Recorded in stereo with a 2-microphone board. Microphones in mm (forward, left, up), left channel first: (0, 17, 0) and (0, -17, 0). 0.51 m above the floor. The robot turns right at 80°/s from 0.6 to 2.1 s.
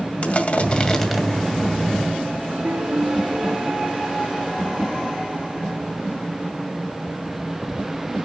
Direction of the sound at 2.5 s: 75° right (ahead or behind).